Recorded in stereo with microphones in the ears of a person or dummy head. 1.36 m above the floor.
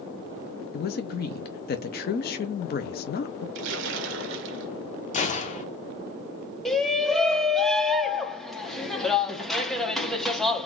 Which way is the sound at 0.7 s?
45° left (ahead or behind).